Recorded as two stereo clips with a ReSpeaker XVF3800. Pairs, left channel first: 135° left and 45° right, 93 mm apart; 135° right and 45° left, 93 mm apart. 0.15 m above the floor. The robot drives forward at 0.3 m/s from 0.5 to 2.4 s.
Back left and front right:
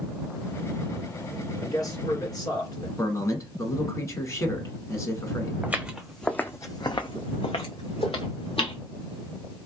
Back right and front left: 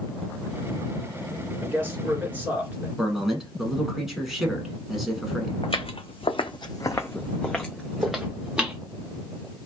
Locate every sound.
1.6 s a man speaking: 100° left, 1.8 m; by 2.9 s 110° left, 1.9 m
3.0 s a man speaking: 130° left, 1.2 m
5.6 s footsteps: 115° right, 0.8 m; by 8.8 s 125° left, 1.5 m